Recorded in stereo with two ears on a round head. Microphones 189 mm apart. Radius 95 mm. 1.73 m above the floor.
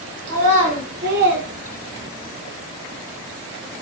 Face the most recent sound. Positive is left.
turn(degrees=-10)  # may be behind; listen again after turning